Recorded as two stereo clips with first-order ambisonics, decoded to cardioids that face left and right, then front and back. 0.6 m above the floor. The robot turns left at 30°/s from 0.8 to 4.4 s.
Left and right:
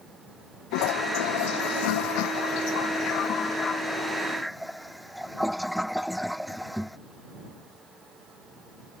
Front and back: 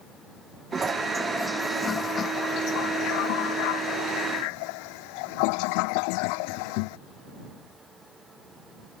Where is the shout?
I don't hear a shout.